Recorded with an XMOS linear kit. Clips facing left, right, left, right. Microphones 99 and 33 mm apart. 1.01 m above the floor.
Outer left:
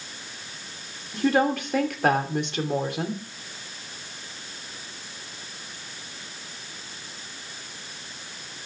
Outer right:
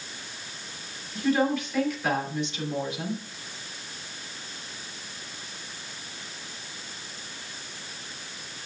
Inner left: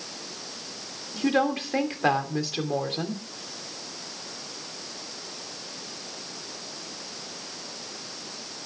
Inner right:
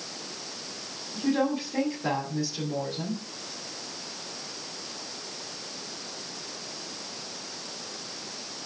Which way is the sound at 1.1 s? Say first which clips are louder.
Outer left 2 dB, inner left 2 dB; 55° left (ahead or behind).